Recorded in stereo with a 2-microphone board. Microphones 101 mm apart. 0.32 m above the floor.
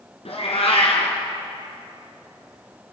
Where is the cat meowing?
75° left (ahead or behind), 2.5 m.